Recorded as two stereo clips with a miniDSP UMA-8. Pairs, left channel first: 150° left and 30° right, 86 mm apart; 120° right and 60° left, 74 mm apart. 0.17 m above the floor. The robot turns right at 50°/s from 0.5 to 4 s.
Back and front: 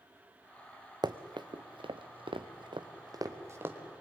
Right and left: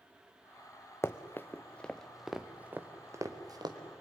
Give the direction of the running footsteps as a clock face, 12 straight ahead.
2 o'clock.